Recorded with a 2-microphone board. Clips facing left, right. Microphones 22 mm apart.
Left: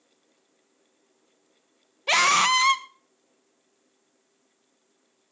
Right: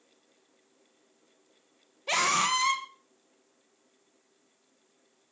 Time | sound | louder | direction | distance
2.1 | a scream | left 6 dB | 30° left (ahead or behind) | 1.3 m